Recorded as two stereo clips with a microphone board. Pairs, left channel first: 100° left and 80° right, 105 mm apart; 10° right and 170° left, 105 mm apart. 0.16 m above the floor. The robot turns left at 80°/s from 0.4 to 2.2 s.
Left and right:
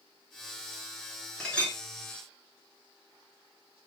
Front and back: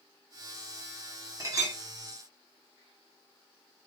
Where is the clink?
175° left, 0.9 m; by 1.8 s 145° left, 0.9 m.